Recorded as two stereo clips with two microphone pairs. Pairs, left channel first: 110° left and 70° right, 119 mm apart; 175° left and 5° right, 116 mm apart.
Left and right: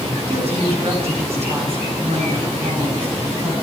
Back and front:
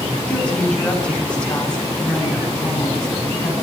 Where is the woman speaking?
105° right, 9.5 m; by 3.5 s 100° right, 12 m.